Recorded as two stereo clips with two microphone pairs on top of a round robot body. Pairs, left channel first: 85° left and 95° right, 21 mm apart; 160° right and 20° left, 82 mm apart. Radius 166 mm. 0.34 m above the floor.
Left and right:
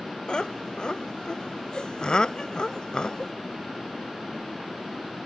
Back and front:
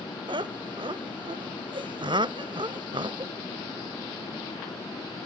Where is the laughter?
35° left.